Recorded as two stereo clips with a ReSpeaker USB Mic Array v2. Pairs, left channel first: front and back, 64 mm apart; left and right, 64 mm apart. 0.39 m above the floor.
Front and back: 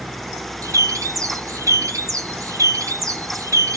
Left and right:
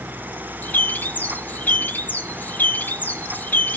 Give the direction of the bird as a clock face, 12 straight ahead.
7 o'clock.